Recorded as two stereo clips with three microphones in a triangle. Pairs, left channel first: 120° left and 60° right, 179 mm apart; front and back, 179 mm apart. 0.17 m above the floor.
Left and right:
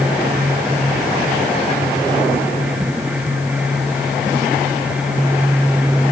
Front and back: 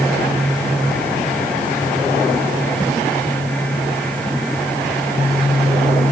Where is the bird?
I don't hear a bird.